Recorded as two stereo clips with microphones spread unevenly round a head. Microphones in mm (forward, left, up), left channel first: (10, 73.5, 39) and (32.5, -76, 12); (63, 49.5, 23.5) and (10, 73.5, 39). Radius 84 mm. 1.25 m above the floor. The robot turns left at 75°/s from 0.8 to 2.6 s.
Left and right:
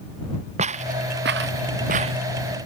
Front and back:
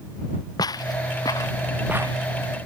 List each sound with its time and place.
0.6 s footsteps: 35° right; by 2.2 s 150° right